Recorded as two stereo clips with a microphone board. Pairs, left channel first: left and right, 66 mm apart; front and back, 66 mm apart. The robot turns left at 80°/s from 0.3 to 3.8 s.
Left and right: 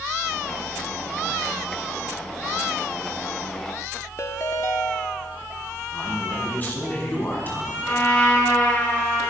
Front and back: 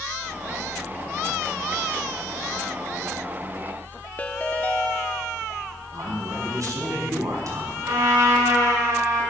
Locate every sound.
4.2 s a ringtone: 60° left, 0.8 m
5.9 s a man speaking: 150° left, 5 m
7.8 s a trumpet: 155° left, 6.5 m